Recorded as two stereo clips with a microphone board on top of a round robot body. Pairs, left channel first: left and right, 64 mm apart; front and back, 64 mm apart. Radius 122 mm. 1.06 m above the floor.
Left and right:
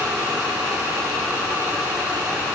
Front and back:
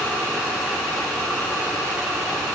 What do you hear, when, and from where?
Only background noise.